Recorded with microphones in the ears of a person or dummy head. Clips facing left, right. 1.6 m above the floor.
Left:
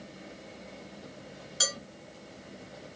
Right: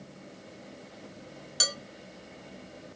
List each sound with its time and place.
1.6 s dishes clattering: 50° right (ahead or behind), 1.3 m